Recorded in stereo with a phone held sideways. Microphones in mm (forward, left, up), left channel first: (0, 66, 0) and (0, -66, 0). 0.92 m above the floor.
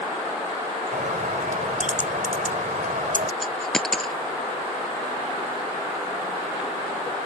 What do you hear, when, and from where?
0.9 s a bird: 75° right (ahead or behind)
3.4 s a dropped coin: 5° left (ahead or behind)